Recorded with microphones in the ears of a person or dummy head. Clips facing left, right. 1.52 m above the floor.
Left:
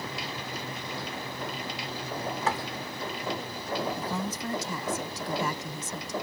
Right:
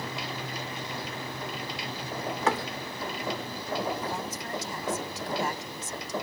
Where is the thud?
55° right (ahead or behind).